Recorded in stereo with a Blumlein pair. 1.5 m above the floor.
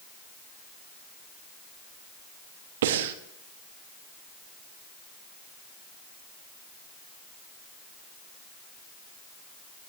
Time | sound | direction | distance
2.8 | breathing | 55° right | 1.1 m